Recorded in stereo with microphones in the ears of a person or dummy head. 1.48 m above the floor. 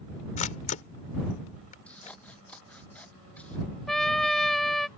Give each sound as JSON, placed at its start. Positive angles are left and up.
{"t": 0.4, "sound": "a camera shutter", "side_deg": 40}
{"t": 1.9, "sound": "scissors", "side_deg": 10}
{"t": 3.9, "sound": "a trumpet", "side_deg": 5}